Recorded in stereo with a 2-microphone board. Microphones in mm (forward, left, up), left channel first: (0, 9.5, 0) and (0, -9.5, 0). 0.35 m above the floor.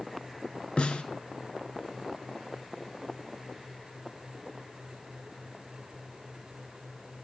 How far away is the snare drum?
About 1.2 m.